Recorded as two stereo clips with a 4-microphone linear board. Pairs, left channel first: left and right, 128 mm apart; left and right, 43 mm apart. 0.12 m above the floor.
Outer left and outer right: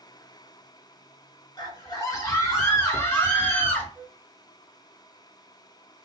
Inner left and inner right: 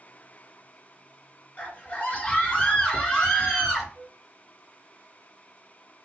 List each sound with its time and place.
1.6 s a scream: 30° left (ahead or behind), 1.7 m; by 3.9 s 10° left (ahead or behind), 2 m
4.0 s a flute: 15° right (ahead or behind), 0.5 m